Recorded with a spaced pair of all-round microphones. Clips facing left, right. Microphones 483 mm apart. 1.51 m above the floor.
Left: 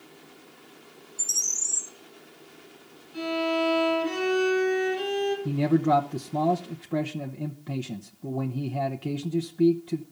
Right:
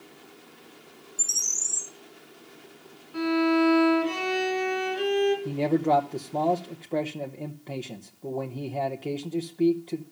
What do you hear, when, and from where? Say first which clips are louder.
1.2 s a bird: even; 35° right (ahead or behind), 2.5 m
3.1 s a violin: right 6 dB; 75° right (ahead or behind), 6 m
5.5 s a man speaking: left 1 dB; 30° left (ahead or behind), 0.9 m